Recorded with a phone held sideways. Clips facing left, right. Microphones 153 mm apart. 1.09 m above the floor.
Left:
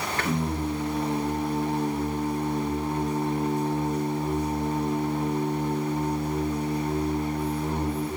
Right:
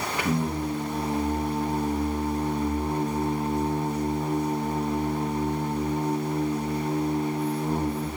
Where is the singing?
10° right (ahead or behind), 0.8 m.